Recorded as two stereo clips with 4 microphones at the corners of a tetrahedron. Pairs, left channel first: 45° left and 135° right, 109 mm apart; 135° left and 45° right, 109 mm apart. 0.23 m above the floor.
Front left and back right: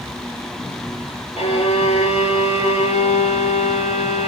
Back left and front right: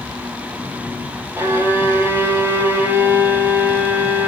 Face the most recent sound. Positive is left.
turn(degrees=25)